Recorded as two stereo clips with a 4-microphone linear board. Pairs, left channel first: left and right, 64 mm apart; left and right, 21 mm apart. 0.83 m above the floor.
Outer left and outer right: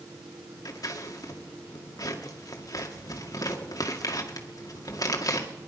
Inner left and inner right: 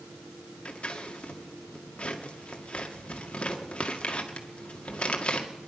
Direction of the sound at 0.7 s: 65° left (ahead or behind).